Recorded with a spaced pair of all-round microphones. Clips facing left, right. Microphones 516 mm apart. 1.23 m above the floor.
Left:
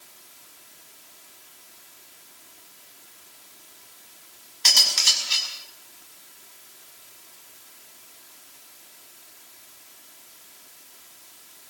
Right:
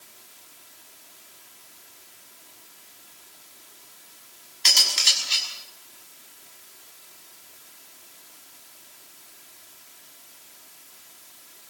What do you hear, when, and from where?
4.7 s cutlery clinking: 65° left (ahead or behind), 5.5 m